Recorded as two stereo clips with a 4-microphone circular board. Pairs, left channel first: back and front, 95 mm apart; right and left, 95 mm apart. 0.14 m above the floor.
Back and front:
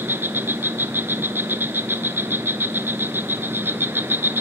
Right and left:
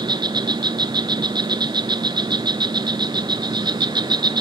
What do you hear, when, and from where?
0.0 s an insect: 65° left, 0.9 m